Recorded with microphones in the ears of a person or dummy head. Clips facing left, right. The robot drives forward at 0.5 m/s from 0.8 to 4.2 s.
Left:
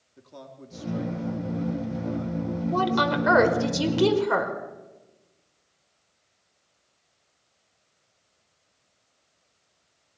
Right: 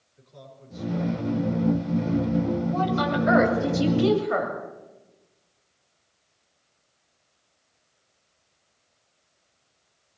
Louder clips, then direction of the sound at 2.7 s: Even; 70° left (ahead or behind).